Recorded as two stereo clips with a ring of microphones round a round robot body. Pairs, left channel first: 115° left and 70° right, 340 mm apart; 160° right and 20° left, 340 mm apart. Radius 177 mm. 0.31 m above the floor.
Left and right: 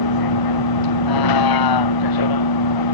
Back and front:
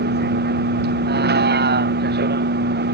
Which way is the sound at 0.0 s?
85° left.